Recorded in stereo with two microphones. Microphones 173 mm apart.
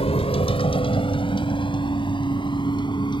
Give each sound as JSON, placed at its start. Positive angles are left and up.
{"t": 0.0, "sound": "a vehicle", "side_deg": 35}